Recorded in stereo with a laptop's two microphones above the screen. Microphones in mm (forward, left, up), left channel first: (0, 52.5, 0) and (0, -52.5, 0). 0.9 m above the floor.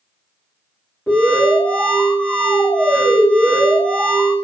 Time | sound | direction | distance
1.1 | an alarm | 15° left (ahead or behind) | 1.8 m